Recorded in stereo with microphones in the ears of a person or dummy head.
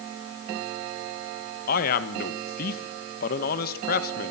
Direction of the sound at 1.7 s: 55° left (ahead or behind).